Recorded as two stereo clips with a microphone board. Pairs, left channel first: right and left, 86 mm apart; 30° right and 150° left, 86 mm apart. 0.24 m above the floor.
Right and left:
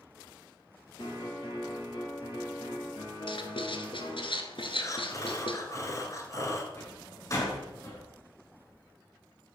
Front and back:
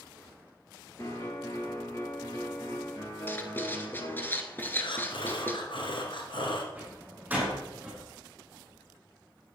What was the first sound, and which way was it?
A piano, 80° right.